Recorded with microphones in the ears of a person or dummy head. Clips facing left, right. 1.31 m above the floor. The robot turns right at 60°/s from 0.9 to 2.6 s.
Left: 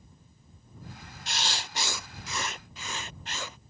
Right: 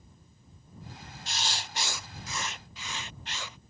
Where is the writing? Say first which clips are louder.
Left 2 dB; 55° left; by 3.6 s 135° left.